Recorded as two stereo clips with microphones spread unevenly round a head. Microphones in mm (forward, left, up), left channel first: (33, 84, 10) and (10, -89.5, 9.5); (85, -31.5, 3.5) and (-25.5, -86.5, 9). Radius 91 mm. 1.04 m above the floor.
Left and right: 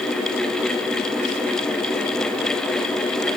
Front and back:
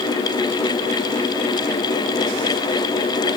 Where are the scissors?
No scissors in this recording.